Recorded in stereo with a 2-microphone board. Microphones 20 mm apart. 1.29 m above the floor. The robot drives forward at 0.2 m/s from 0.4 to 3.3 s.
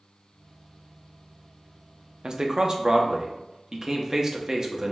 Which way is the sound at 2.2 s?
40° right (ahead or behind).